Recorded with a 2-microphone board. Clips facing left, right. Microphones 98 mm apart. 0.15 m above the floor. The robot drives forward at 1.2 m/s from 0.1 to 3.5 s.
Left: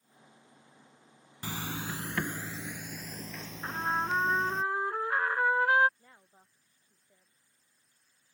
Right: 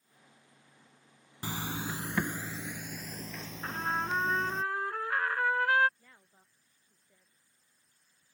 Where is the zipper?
20° right (ahead or behind); by 4.6 s 5° right (ahead or behind).